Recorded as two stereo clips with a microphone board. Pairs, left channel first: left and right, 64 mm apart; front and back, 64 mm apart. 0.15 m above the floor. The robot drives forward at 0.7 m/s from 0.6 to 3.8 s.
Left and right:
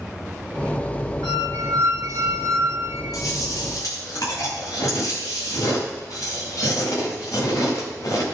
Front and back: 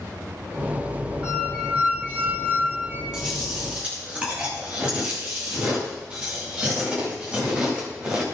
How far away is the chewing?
About 6.5 m.